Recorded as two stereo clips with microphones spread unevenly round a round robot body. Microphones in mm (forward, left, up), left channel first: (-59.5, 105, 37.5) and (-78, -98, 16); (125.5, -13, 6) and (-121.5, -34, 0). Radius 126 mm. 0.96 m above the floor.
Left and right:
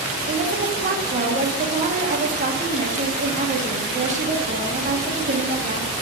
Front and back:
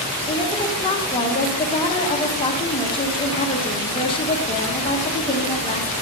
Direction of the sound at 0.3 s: 60° right.